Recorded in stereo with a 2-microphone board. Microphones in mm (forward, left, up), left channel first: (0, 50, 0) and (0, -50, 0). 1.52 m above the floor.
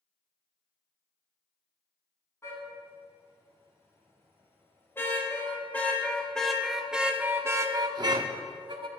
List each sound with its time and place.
2.4 s a car horn: 30° left (ahead or behind), 5.5 m; by 8.9 s 50° right (ahead or behind), 1.8 m